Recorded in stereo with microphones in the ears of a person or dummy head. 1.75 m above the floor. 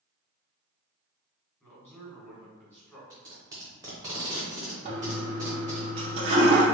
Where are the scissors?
I don't hear scissors.